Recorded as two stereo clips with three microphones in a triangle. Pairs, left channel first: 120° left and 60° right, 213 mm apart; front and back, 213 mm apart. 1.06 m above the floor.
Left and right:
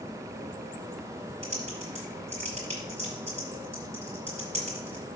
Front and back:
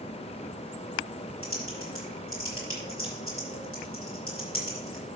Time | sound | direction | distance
1.4 | typing on a keyboard | 5° right | 5.5 m